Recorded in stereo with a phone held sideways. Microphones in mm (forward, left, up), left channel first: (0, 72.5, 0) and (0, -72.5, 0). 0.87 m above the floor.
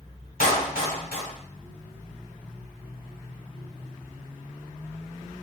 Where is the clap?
80° left, 1.8 m.